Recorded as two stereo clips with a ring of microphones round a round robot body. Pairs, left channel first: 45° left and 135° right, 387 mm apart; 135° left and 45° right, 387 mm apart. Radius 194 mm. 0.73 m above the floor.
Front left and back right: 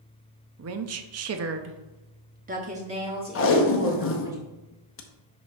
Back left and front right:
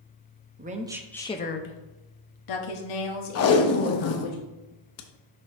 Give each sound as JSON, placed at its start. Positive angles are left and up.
{"t": 0.6, "sound": "a woman speaking", "azimuth_deg": -100, "distance_m": 0.7}
{"t": 3.4, "sound": "tape being pulled", "azimuth_deg": 95, "distance_m": 0.8}